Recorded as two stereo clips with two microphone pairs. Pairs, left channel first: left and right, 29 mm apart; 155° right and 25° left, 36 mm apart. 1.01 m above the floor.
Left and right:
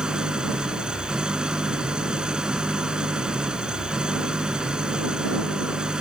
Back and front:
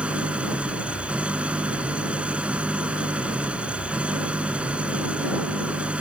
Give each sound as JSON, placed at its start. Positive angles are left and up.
{"t": 0.0, "sound": "an engine running", "azimuth_deg": -30}